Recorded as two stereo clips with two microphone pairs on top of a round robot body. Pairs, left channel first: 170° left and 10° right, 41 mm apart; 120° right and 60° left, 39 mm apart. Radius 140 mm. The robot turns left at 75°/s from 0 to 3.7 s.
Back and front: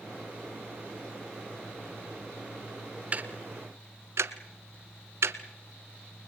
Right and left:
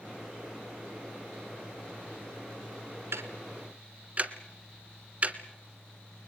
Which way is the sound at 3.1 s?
50° left.